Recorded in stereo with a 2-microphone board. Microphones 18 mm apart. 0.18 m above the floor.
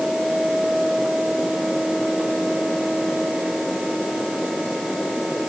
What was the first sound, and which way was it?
Only background noise.